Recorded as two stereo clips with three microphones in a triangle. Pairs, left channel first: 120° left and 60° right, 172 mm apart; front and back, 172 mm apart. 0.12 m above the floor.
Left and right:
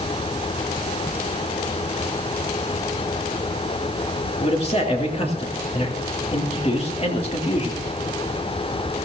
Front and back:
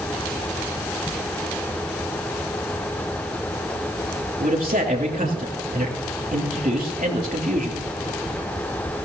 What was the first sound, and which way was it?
A man speaking, 165° left.